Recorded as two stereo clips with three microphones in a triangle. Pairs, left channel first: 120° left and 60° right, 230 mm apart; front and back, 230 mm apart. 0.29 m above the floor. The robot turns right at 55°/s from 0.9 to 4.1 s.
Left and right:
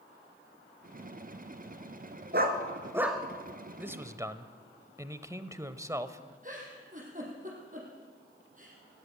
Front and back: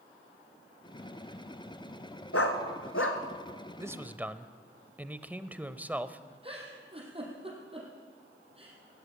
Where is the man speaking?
130° right, 0.9 m; by 6.3 s 110° right, 0.9 m.